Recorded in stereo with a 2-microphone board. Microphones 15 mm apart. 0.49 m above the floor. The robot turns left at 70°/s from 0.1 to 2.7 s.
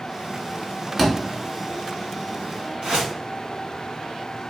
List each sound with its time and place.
1.0 s a thud: 5° left (ahead or behind), 2 m; by 1.1 s 5° right (ahead or behind), 2 m
2.8 s a whoosh: 75° right (ahead or behind), 1.5 m